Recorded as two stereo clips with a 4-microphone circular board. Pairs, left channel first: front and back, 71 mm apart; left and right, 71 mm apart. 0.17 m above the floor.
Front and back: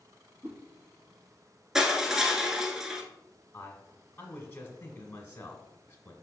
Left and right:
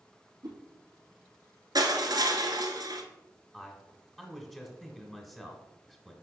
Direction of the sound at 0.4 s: 115° right.